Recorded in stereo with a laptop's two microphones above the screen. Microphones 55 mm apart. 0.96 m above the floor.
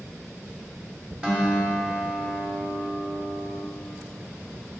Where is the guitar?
20° right (ahead or behind), 1.4 m.